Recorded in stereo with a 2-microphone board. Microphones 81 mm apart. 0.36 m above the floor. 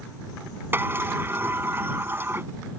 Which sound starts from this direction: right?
A sliding door, at 0.7 s.